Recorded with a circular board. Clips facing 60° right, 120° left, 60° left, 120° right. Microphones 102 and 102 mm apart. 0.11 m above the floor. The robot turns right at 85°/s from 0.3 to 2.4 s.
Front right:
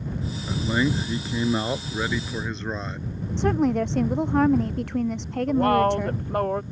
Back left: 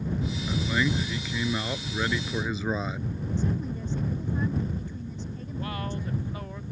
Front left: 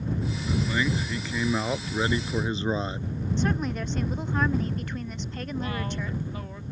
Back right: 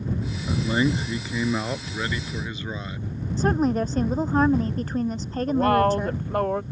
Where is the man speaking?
125° right; by 3.1 s 40° left.